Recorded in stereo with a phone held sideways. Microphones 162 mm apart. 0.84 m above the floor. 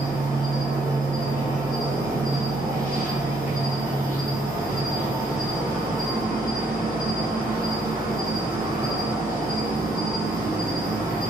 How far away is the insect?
About 1.9 m.